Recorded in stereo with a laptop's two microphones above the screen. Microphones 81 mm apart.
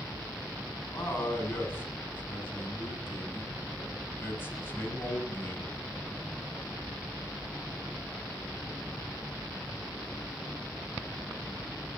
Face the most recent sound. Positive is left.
turn(degrees=25)  # may be behind; listen again after turning